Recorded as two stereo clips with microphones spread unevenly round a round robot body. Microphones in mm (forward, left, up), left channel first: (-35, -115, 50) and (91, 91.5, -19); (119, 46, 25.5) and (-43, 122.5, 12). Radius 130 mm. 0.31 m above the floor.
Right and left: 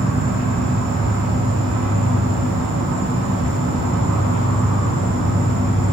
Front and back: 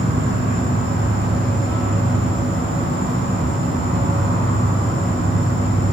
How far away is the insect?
About 3 m.